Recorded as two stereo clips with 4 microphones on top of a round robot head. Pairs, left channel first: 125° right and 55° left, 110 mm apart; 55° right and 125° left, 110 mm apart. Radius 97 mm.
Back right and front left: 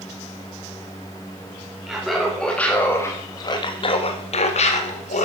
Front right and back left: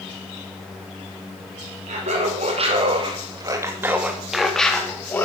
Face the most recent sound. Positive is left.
turn(degrees=-125)